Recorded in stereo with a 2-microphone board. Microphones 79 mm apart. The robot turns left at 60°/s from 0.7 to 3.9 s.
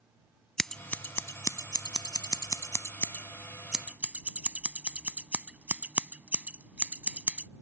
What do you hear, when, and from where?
0.6 s scissors: 5° left (ahead or behind); by 7.5 s 20° right (ahead or behind)